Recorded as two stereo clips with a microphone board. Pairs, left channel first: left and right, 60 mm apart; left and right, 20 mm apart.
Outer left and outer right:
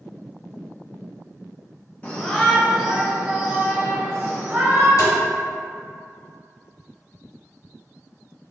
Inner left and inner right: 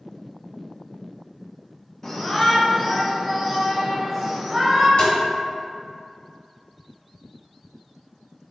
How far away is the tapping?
About 1.4 m.